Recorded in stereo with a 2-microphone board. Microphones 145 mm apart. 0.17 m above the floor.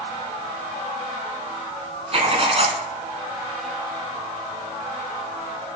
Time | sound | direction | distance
2.1 | writing | 45° right (ahead or behind) | 1.1 m